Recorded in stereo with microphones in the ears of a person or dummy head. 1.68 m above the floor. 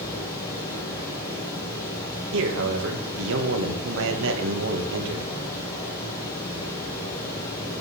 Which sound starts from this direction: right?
A man speaking, at 2.3 s.